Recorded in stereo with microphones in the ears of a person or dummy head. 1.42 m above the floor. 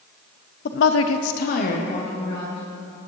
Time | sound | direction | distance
0.7 | a woman speaking | 50° left (ahead or behind) | 0.7 m